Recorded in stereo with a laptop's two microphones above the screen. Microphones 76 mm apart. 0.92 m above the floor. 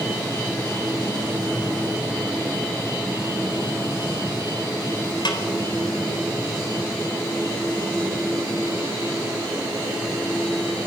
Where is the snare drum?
80° left, 3.5 m.